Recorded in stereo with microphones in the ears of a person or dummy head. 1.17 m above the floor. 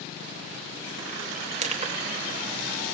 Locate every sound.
1.6 s crushing: 35° right (ahead or behind), 1.2 m